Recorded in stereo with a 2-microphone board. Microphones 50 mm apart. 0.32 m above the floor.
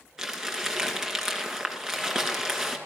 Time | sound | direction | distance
0.2 | crumpling | 10° right (ahead or behind) | 2.0 m